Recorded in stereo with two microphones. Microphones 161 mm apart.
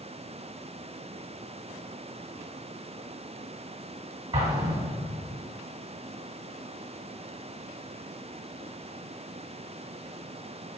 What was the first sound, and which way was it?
An explosion, 35° right (ahead or behind).